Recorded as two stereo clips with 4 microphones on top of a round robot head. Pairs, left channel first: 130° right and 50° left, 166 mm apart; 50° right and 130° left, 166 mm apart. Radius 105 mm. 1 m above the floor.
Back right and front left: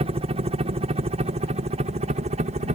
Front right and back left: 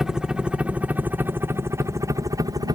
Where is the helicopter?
45° left; by 2.8 s 75° left.